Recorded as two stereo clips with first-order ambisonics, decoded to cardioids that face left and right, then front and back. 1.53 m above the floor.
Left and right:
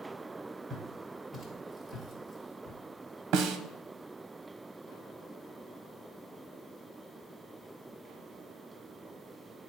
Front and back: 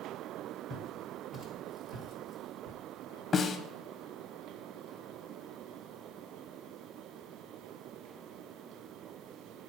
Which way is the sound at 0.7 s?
145° right.